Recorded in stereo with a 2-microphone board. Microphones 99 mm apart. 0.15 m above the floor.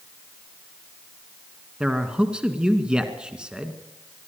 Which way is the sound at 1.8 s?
10° right (ahead or behind).